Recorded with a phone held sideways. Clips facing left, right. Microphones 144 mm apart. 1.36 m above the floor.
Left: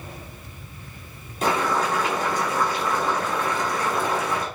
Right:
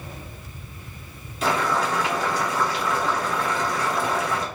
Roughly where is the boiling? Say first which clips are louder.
Left 1 dB; left.